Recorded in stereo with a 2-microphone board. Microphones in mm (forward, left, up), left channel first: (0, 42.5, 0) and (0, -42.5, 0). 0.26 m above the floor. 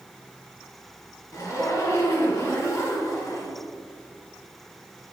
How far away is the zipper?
About 1.2 m.